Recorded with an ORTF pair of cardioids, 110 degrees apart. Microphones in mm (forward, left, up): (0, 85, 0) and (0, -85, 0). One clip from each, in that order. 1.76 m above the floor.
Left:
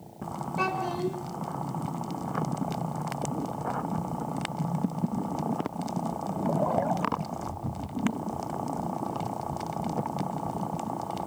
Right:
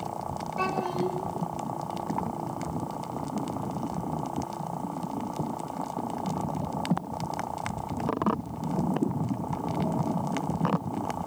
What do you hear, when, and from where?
0.6 s a child speaking: 15° left, 5.5 m